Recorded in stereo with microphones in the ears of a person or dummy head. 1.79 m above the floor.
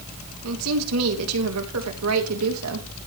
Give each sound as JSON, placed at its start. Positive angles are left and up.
{"t": 0.4, "sound": "a woman speaking", "side_deg": -75, "distance_m": 3.0}